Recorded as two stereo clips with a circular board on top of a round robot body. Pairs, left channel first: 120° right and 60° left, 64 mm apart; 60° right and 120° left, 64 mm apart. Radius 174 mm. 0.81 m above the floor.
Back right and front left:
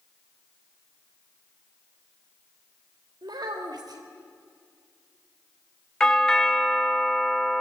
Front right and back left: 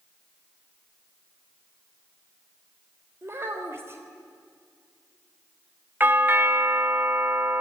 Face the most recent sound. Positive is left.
turn(degrees=165)